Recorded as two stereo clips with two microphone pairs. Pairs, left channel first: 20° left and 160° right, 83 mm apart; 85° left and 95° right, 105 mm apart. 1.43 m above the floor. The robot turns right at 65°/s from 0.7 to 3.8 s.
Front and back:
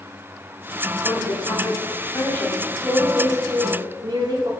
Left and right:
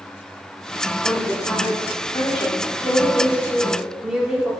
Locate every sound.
1.0 s a woman speaking: straight ahead, 4 m; by 4.5 s straight behind, 4 m